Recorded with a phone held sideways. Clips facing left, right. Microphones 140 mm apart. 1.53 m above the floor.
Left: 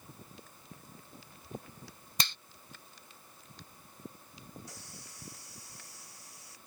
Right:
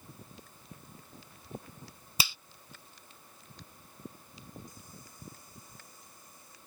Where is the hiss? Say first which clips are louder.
Even; 80° left.